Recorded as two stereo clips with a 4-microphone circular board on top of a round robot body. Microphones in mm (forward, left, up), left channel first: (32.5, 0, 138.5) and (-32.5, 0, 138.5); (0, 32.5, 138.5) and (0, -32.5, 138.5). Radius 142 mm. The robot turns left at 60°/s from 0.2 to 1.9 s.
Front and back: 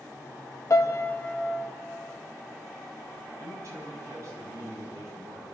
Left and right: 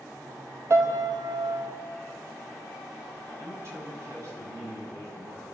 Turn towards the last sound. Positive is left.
turn(degrees=-140)